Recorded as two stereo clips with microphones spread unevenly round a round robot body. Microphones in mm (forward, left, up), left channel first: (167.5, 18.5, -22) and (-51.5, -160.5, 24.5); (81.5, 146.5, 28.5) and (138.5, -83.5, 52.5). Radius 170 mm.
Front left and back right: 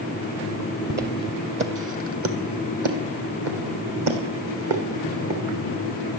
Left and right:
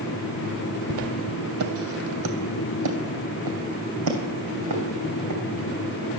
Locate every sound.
0.9 s footsteps: 90° right, 1.3 m; by 5.4 s 115° right, 3.5 m